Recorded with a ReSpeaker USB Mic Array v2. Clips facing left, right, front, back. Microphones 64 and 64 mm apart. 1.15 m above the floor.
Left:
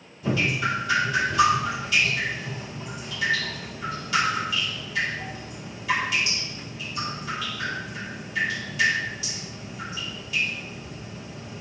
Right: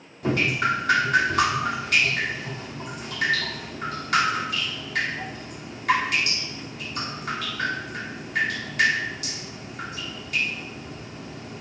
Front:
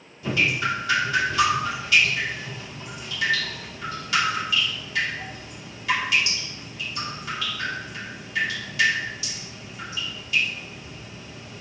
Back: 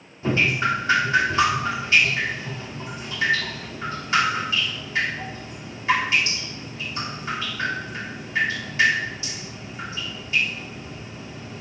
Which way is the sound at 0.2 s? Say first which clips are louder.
Right 2 dB, back 2 dB; 125° right.